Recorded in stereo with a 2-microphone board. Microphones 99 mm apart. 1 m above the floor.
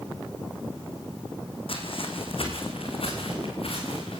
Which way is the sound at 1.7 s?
65° left (ahead or behind).